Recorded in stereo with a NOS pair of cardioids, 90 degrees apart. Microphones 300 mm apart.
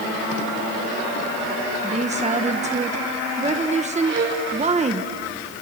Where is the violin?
45° right, 5.5 m.